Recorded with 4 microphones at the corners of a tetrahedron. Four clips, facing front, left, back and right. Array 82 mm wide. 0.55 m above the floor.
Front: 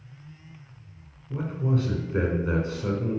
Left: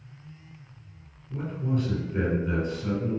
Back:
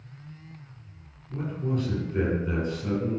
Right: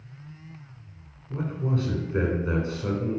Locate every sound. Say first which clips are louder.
1.3 s a man speaking: right 1 dB, front 2 dB; 45° right, 2.5 m